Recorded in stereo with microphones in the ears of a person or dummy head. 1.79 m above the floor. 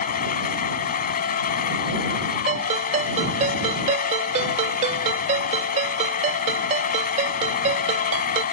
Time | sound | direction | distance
0.0 | a machine running | 50° left (ahead or behind) | ?
2.5 | a ringtone | 40° right (ahead or behind) | ?